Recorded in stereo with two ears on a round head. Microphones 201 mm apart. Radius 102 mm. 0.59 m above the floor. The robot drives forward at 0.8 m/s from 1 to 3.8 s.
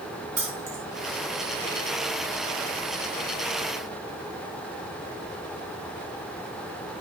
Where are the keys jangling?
85° right, 4 m.